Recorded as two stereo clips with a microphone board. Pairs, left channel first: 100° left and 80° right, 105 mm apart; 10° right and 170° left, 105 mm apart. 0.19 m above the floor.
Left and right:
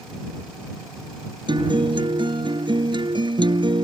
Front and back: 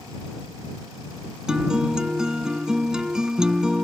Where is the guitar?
110° right.